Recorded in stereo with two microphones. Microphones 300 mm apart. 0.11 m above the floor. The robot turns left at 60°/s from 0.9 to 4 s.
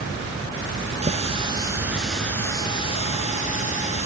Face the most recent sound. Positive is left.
turn(degrees=25)  # may be behind; listen again after turning